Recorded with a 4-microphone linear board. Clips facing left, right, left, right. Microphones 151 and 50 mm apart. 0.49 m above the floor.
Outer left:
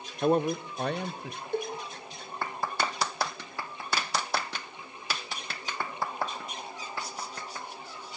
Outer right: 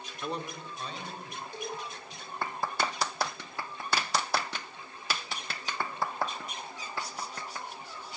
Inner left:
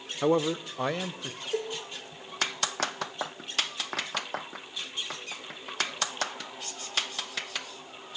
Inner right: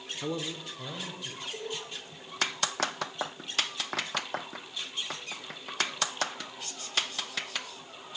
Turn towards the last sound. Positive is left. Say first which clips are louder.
# outer left 8 dB, inner left 8 dB
turn(degrees=55)  # may be behind; listen again after turning